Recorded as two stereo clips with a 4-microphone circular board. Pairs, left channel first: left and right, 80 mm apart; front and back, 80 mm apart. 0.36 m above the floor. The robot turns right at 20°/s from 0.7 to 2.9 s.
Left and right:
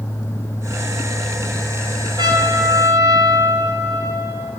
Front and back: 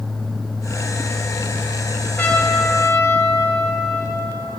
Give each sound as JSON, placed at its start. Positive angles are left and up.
{"t": 2.2, "sound": "a trumpet", "azimuth_deg": -65, "distance_m": 3.0}